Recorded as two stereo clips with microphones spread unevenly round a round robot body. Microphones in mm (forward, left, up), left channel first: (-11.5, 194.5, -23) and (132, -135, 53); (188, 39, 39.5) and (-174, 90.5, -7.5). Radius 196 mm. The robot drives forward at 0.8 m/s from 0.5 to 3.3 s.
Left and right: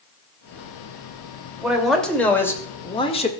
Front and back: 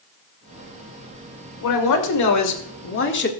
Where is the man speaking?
25° left, 2.5 m; by 3.3 s 55° left, 1.6 m.